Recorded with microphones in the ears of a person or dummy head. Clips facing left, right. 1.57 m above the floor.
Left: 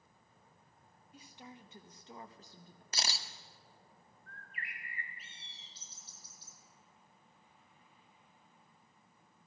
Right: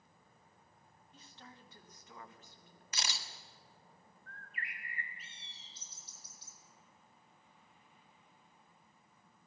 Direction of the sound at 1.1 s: 5° left (ahead or behind).